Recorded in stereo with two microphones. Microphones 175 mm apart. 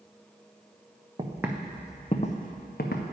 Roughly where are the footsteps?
Right.